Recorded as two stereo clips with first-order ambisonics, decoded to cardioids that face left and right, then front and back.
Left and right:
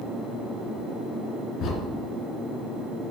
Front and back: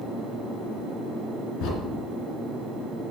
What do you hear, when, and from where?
1.6 s a crack: 40° left, 2.5 m